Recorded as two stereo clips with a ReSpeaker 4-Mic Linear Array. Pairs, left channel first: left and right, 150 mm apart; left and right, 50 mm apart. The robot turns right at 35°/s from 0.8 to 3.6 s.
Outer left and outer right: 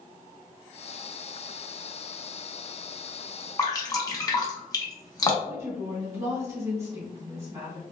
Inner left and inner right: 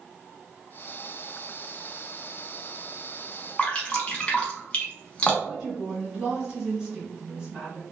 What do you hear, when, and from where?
3.6 s dripping: 25° left (ahead or behind), 0.7 m
5.5 s a woman speaking: 20° right (ahead or behind), 1.9 m